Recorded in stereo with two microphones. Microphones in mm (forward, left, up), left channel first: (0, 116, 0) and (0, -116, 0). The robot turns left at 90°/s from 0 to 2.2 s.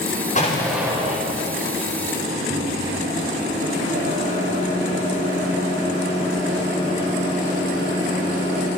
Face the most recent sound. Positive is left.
turn(degrees=-80)